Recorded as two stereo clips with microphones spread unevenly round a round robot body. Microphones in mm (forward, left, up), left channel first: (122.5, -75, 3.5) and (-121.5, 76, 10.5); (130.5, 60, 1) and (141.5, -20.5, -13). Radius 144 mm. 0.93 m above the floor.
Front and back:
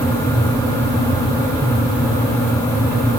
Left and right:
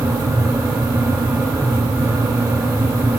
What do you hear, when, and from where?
Only background noise.